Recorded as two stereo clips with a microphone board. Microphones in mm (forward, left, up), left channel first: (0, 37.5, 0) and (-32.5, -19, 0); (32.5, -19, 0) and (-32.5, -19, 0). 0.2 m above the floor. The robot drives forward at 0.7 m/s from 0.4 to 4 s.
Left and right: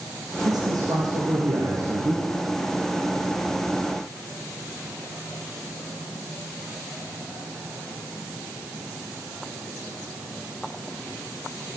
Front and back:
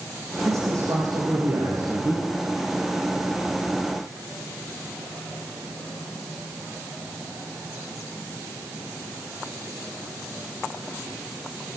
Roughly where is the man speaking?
Behind right.